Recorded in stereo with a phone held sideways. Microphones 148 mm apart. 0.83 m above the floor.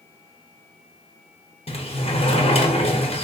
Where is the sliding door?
40° left (ahead or behind), 0.7 m.